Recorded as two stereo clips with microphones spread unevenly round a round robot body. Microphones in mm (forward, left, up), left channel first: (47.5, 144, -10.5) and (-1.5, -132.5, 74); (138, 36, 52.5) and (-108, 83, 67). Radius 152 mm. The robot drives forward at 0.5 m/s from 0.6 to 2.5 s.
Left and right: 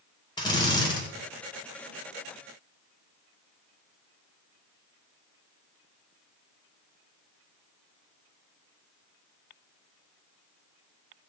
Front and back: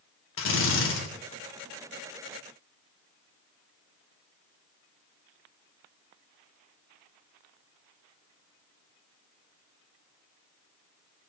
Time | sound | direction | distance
0.4 | a drill | 15° left | 3 m